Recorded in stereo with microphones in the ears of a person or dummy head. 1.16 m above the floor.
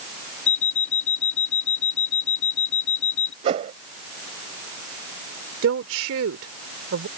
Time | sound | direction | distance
0.5 | an alarm clock | 65° left (ahead or behind) | ?
3.4 | a whoosh | 40° right (ahead or behind) | ?
5.6 | a woman speaking | 80° right | ?